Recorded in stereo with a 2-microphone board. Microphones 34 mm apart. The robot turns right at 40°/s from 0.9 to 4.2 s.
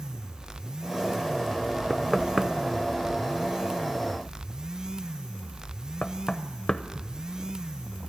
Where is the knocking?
15° right (ahead or behind), 0.6 m; by 7.2 s 25° left (ahead or behind), 0.6 m.